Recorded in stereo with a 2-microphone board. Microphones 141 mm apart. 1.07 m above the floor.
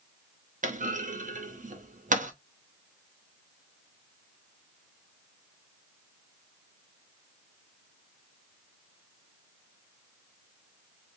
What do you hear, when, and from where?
0.6 s a clunk: 65° right (ahead or behind), 0.6 m